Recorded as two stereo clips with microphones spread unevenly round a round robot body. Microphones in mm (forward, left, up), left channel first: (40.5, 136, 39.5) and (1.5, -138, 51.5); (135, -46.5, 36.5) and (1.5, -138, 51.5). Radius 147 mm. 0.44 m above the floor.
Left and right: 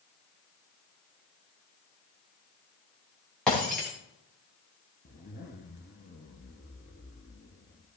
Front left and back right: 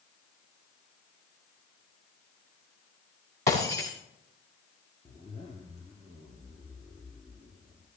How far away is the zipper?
About 1.7 m.